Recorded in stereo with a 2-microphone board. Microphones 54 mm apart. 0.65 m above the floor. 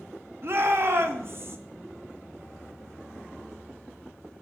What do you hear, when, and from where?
0.4 s a shout: 50° right (ahead or behind), 1.0 m